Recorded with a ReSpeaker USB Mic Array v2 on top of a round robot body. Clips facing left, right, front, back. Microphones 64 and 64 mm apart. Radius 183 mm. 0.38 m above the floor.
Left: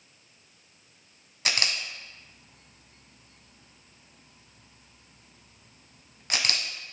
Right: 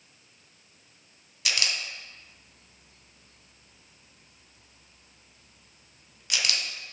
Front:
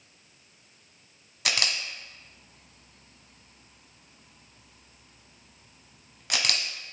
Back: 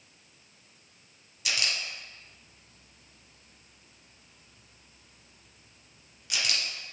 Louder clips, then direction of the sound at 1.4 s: Left 1 dB, front 2 dB; 35° left.